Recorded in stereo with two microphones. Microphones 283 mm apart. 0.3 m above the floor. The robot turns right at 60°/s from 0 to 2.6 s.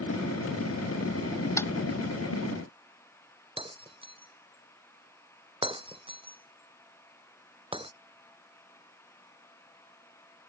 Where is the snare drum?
10° left (ahead or behind); by 1.7 s centre (ahead or behind).